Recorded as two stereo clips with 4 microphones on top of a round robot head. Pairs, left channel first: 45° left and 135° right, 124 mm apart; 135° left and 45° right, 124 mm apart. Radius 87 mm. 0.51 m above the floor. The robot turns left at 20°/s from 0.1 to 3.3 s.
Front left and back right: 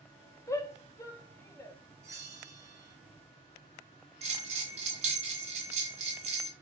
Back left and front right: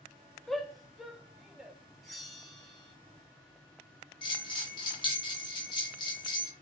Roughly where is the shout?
Ahead left.